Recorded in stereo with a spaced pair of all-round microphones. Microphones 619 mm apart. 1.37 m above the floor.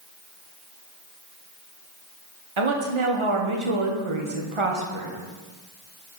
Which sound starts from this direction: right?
A woman speaking, at 2.6 s.